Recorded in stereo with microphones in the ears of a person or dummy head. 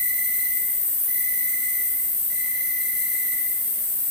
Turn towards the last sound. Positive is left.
turn(degrees=75)  # may be behind; listen again after turning